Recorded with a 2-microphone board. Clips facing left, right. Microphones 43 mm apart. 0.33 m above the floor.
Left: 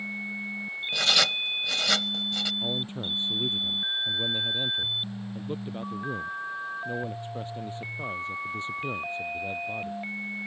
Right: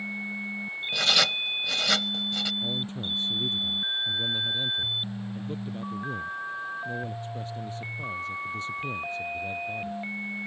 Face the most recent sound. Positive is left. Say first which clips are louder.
# even
turn(degrees=30)  # may be behind; listen again after turning